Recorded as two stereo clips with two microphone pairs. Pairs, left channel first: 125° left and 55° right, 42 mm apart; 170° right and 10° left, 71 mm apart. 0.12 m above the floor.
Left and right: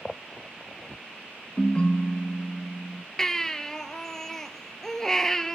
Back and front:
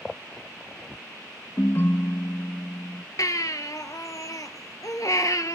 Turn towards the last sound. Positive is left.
turn(degrees=-160)